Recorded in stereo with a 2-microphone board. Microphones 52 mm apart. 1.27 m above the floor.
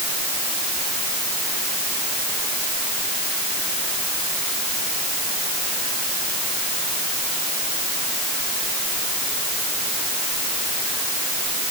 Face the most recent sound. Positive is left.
No sound to turn to.